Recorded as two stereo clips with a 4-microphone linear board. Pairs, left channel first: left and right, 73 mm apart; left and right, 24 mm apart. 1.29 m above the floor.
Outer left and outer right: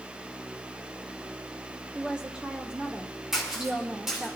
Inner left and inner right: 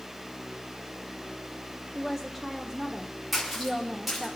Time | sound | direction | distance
1.9 | a woman speaking | 15° right (ahead or behind) | 0.8 m
3.3 | a splash | 5° right (ahead or behind) | 4 m